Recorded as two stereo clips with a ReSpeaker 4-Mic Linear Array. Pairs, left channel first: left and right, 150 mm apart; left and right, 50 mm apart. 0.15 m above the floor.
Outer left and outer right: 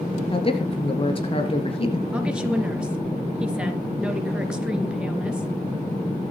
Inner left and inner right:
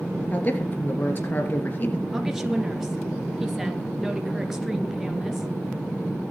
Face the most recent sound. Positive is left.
turn(degrees=-5)  # may be behind; listen again after turning